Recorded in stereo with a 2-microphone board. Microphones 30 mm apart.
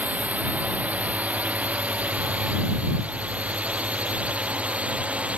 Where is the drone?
60° right (ahead or behind); by 5.4 s 45° right (ahead or behind).